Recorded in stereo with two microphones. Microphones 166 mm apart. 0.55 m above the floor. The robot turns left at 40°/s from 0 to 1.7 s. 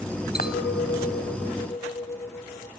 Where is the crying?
No crying in this recording.